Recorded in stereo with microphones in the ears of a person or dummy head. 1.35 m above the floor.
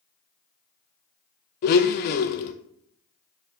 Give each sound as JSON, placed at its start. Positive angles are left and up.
{"t": 1.6, "sound": "a blender", "side_deg": 50, "distance_m": 0.7}